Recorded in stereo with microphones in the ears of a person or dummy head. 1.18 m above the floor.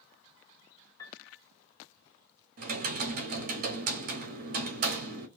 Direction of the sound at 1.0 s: 15° left (ahead or behind).